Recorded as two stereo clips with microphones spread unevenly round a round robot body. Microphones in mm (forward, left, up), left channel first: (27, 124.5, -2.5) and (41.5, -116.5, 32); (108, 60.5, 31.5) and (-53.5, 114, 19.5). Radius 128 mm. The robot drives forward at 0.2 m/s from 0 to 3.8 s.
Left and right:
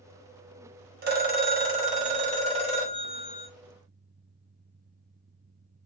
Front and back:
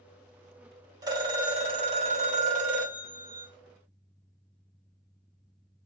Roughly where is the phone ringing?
Behind right.